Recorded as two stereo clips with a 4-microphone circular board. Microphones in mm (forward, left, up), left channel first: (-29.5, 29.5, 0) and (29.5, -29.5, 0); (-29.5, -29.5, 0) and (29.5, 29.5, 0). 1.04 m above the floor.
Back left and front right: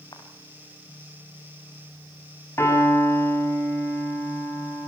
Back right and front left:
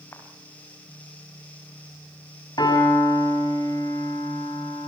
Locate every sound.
0.1 s footsteps: 165° left, 4 m
2.6 s a piano: 165° right, 7 m